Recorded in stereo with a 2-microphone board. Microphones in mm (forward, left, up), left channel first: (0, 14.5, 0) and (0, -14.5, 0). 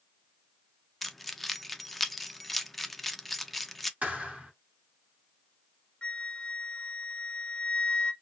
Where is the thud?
50° right (ahead or behind), 2 m.